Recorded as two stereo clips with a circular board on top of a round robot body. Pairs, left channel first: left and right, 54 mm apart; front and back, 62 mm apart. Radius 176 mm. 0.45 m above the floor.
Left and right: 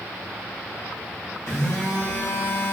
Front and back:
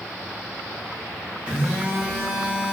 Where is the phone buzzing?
110° left, 1.1 m.